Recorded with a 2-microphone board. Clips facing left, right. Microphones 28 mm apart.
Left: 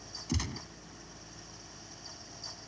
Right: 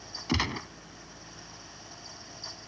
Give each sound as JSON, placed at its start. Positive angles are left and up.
{"t": 0.3, "sound": "a gunshot", "side_deg": -50}